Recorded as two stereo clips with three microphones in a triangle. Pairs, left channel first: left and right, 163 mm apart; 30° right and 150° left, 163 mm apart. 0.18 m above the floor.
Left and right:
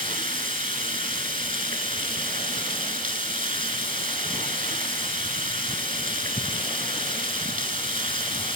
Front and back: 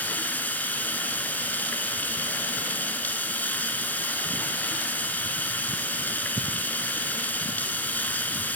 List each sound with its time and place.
0.0 s running water: 110° right, 0.9 m